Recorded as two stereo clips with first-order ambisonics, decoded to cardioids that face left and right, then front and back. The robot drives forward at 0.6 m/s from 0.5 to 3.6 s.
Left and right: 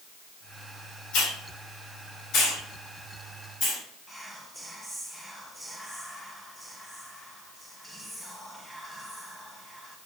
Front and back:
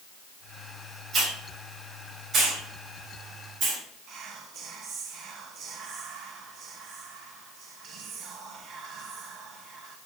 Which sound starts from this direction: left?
A hiss, at 1.1 s.